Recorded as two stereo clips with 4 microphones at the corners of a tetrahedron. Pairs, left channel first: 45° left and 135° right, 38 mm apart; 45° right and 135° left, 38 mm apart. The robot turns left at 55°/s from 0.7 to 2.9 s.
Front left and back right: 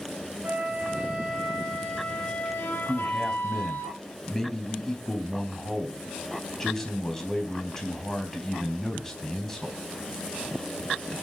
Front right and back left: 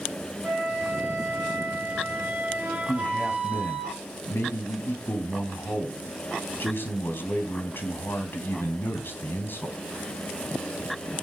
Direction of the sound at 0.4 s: 170° right.